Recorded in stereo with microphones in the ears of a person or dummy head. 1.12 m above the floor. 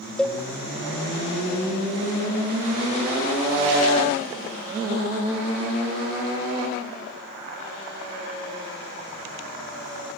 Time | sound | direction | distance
0.2 | a cowbell | 10° left (ahead or behind) | 1.3 m